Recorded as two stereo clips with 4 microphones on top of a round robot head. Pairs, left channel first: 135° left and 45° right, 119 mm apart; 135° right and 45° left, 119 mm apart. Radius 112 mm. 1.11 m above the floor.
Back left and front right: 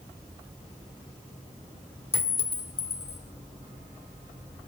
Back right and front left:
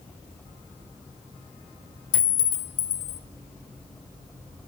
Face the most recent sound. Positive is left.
turn(degrees=-150)